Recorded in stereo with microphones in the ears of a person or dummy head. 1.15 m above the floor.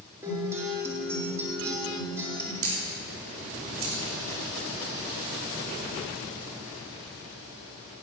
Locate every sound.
0.2 s a guitar: 15° right (ahead or behind), 2.5 m
2.6 s a camera shutter: 75° right (ahead or behind), 3.5 m